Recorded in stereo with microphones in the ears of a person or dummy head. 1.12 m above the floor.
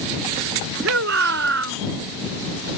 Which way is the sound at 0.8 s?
60° right (ahead or behind).